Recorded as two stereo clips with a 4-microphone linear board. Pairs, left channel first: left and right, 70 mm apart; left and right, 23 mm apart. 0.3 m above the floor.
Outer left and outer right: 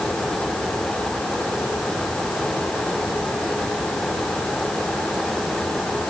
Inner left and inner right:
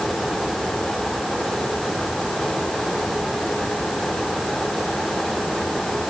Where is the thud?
No thud in this recording.